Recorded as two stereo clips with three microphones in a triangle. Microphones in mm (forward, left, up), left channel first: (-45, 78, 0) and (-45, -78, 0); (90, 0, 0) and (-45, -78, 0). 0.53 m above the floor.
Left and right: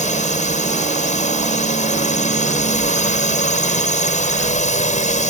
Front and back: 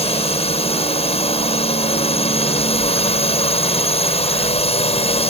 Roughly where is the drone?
Left.